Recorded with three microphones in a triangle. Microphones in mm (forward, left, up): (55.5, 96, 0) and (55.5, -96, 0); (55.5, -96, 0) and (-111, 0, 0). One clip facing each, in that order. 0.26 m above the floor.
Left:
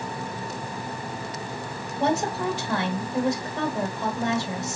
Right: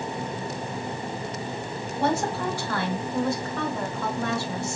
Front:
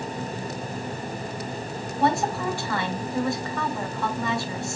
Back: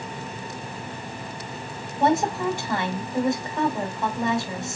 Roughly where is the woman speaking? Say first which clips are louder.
Left 1 dB, back 2 dB; behind left.